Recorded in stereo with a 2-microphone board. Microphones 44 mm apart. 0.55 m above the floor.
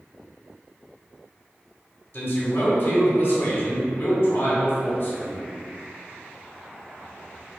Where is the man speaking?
55° left (ahead or behind), 1.1 m.